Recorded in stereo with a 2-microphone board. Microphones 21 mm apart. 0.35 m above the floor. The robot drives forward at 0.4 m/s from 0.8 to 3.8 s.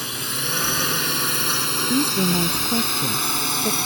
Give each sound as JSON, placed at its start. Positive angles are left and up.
{"t": 0.0, "sound": "a drone", "side_deg": -5}
{"t": 1.9, "sound": "a woman speaking", "side_deg": -50}